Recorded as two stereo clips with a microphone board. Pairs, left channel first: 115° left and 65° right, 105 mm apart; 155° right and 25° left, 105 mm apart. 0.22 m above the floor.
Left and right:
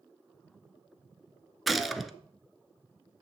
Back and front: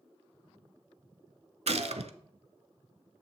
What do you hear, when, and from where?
1.7 s a gunshot: 20° left, 0.5 m